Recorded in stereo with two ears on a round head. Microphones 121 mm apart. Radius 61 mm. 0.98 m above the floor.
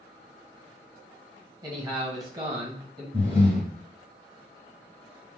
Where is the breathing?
15° right (ahead or behind), 1.1 m.